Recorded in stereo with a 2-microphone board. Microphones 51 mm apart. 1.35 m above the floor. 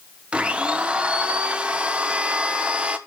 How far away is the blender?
About 1.0 m.